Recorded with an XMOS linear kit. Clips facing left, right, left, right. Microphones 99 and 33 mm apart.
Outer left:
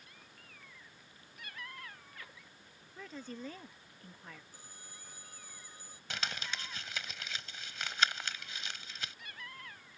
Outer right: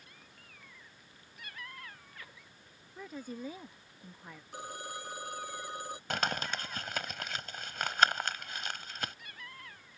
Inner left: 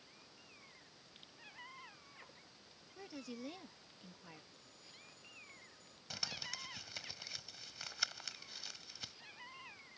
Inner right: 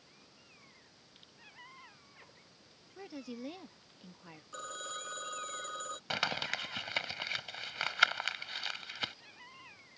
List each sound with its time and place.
3.0 s a woman speaking: 10° right (ahead or behind)
4.5 s a phone ringing: 75° right (ahead or behind)
6.1 s crumpling: 55° right (ahead or behind)